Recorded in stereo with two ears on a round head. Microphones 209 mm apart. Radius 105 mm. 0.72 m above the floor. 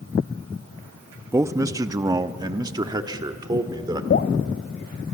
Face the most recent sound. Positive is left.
turn(degrees=45)  # may be behind; listen again after turning